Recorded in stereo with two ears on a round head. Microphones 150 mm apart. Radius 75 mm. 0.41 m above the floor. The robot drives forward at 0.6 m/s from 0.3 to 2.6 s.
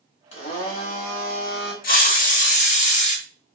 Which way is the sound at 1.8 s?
60° left (ahead or behind).